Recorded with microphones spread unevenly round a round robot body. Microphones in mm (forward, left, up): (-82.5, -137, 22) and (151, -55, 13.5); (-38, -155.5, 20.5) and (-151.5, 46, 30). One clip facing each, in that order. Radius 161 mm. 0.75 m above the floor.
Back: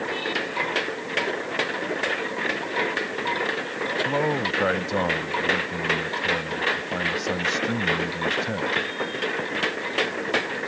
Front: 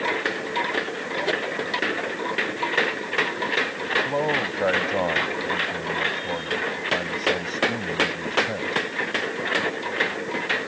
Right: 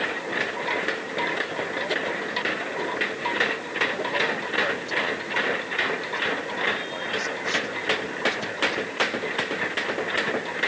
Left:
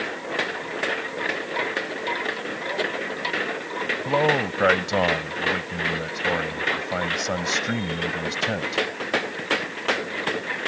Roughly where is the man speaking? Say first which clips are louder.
Back 2 dB, left 7 dB; behind left.